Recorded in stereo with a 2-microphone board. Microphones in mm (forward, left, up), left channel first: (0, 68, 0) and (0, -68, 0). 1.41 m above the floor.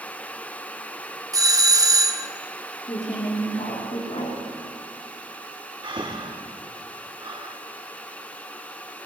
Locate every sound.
1.3 s a doorbell: 25° right (ahead or behind), 0.7 m
2.9 s a woman speaking: 50° left (ahead or behind), 3 m
5.8 s breathing: 35° right (ahead or behind), 1.3 m